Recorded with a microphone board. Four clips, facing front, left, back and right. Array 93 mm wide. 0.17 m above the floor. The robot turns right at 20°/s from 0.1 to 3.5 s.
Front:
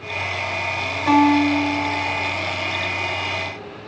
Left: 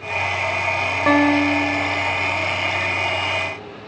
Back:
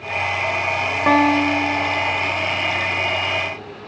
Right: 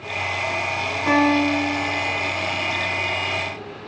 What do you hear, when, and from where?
1.1 s a guitar: 140° left, 4.5 m; by 2.3 s 165° left, 4.5 m